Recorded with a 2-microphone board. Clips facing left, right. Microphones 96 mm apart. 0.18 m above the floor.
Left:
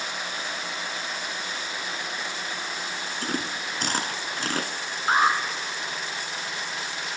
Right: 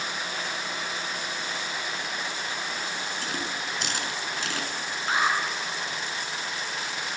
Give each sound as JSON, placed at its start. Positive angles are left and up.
{"t": 3.2, "sound": "chewing", "side_deg": 45, "distance_m": 1.4}
{"t": 5.1, "sound": "an alarm", "side_deg": 40, "distance_m": 2.5}